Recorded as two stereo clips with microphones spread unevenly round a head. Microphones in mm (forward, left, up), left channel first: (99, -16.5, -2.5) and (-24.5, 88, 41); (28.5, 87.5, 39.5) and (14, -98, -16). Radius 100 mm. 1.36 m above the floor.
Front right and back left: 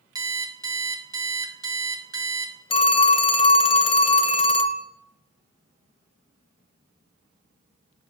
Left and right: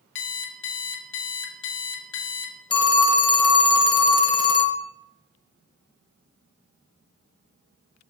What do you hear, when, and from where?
0.1 s an alarm clock: 80° left, 1.1 m
2.7 s a phone ringing: 25° left, 0.8 m